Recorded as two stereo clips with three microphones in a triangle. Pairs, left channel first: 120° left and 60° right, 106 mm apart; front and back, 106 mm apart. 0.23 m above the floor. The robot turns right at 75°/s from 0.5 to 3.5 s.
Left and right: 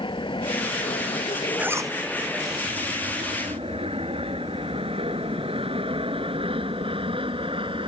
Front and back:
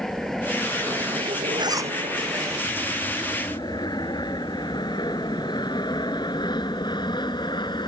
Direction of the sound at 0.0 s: 85° left.